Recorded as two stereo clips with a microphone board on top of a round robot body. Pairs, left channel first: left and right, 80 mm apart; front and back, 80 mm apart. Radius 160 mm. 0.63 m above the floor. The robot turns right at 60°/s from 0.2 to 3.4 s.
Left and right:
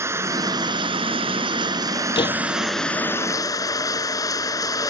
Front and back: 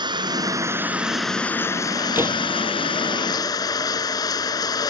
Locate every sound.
0.0 s running water: 150° right; by 4.9 s 40° left
2.1 s a door slam: 115° left; by 2.4 s 130° left